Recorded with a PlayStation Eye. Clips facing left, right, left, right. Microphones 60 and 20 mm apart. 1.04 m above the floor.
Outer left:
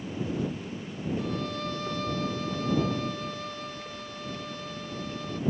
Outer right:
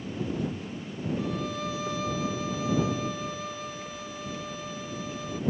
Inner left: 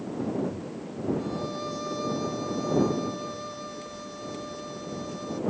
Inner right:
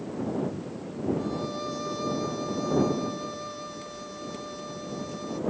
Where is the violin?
5° right (ahead or behind).